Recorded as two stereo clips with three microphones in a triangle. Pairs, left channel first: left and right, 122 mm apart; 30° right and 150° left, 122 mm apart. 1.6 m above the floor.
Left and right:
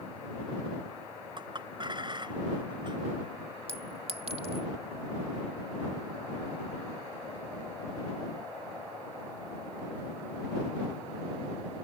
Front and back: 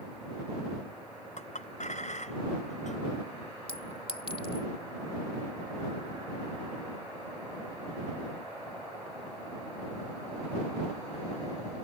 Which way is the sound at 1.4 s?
40° right.